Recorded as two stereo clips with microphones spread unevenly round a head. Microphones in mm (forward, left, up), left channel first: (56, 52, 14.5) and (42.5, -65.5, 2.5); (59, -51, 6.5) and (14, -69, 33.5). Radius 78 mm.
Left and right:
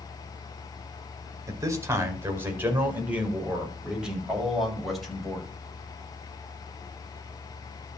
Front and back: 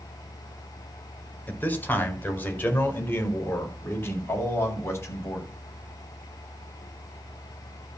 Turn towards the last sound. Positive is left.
turn(degrees=-5)